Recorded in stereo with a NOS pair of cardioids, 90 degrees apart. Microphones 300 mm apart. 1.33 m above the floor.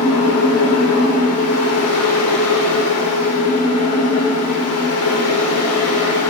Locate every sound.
0.0 s a fan: 55° left, 1.2 m